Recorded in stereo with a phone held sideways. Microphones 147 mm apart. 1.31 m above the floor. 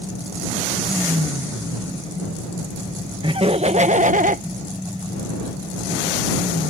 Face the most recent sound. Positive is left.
turn(degrees=-70)  # may be behind; listen again after turning